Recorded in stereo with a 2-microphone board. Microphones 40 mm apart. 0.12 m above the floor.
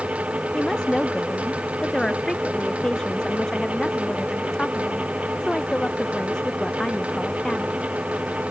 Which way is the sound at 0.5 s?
15° left (ahead or behind).